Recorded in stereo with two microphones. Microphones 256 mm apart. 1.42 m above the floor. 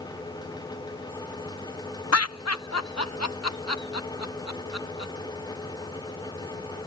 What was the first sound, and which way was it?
Laughter, 70° left (ahead or behind).